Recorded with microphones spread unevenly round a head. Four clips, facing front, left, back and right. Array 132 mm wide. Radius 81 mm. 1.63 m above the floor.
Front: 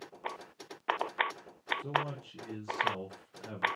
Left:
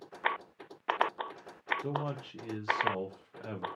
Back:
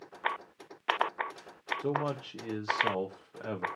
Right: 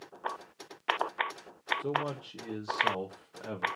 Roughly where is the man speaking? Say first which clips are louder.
Right 5 dB, back 4 dB; behind.